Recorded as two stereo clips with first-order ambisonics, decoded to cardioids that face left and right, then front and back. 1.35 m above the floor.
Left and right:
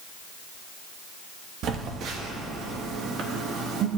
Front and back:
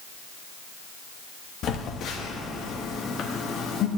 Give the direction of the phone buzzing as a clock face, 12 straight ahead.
2 o'clock.